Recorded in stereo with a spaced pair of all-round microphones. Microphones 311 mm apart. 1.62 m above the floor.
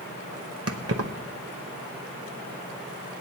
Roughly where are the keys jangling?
Right.